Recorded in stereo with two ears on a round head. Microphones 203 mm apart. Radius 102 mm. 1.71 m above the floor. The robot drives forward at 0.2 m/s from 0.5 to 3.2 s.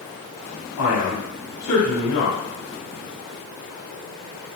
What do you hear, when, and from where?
0.8 s a man speaking: 75° left (ahead or behind), 1.1 m; by 2.4 s 70° left (ahead or behind), 1.1 m